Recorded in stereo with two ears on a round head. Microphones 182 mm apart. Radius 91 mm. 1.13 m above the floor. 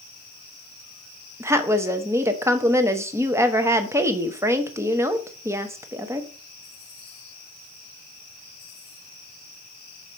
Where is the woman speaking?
15° right (ahead or behind), 0.9 m.